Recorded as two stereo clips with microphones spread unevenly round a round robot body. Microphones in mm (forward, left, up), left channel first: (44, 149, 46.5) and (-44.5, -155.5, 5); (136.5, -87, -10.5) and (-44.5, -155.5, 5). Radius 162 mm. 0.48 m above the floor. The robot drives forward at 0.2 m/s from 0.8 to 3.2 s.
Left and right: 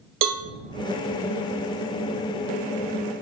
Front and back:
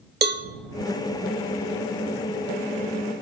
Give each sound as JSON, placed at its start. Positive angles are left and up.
{"t": 0.2, "sound": "a cowbell", "azimuth_deg": -125, "distance_m": 1.3}